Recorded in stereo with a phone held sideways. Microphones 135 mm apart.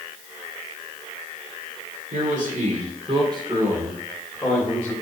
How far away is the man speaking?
About 2.5 m.